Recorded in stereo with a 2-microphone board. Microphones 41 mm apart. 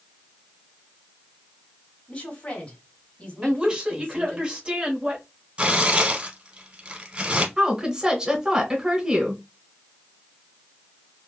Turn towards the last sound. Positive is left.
turn(degrees=-20)  # may be behind; listen again after turning